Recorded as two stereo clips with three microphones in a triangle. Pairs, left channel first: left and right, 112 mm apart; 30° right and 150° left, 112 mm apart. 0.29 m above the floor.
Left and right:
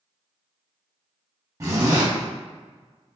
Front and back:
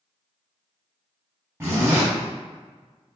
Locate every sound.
1.6 s a zipper: 145° right, 1.1 m